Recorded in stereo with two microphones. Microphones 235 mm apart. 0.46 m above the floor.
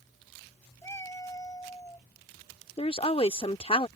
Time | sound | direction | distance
0.8 | a cat meowing | 10° left (ahead or behind) | ?
2.8 | a woman speaking | 25° left (ahead or behind) | ?